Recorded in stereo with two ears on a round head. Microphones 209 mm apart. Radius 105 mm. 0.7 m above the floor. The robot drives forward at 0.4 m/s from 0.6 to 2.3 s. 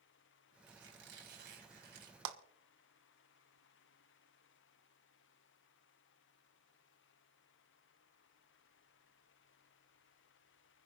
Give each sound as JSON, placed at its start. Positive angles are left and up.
{"t": 0.7, "sound": "a squeak", "side_deg": -55, "distance_m": 4.5}
{"t": 2.2, "sound": "a clap", "side_deg": -60, "distance_m": 1.3}